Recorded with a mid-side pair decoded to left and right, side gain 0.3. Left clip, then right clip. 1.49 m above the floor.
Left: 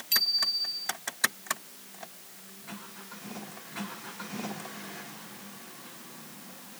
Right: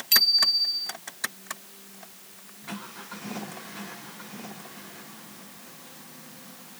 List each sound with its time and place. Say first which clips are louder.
0.1 s a bicycle bell: right 6 dB; 55° right